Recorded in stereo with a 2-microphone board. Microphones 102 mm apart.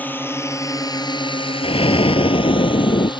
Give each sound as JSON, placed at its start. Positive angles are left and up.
{"t": 0.0, "sound": "a drone", "side_deg": 15}
{"t": 1.6, "sound": "an explosion", "side_deg": 70}